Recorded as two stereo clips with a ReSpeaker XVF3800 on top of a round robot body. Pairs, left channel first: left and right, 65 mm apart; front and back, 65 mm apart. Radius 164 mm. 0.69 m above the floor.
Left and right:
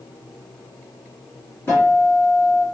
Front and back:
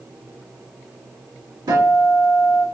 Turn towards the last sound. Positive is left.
turn(degrees=155)